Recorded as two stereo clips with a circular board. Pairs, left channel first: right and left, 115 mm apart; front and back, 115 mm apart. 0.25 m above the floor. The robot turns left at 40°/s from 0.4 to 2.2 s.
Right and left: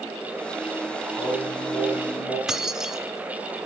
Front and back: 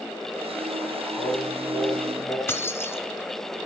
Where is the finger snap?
No finger snap in this recording.